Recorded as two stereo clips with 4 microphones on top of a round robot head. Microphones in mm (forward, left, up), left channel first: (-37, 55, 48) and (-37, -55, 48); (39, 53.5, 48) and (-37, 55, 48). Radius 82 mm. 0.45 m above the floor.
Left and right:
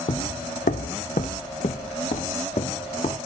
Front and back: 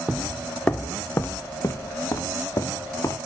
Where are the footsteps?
105° left, 0.7 m; by 3.2 s 45° left, 3 m.